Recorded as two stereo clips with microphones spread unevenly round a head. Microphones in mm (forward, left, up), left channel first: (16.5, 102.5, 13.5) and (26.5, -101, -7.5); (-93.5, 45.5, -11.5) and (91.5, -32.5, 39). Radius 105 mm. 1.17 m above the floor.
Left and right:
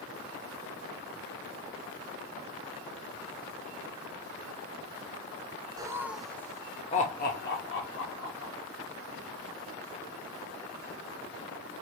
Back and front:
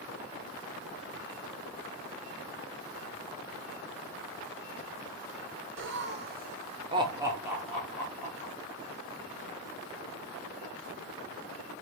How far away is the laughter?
About 0.8 m.